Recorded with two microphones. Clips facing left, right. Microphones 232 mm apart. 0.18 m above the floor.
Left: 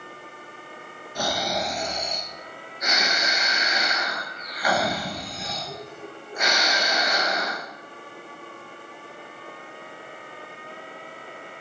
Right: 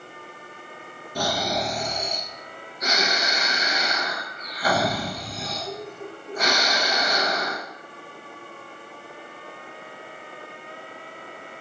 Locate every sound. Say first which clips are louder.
1.1 s snoring: right 2 dB; 35° right (ahead or behind), 1.9 m